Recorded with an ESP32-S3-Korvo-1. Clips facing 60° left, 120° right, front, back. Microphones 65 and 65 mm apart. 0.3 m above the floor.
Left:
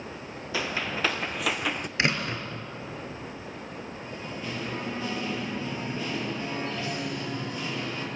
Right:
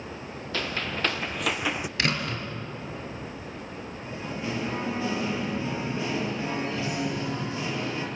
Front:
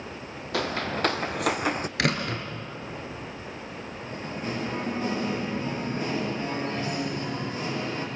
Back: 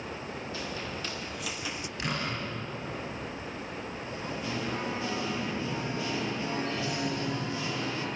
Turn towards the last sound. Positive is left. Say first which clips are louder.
# right 5 dB, front 4 dB
turn(degrees=-45)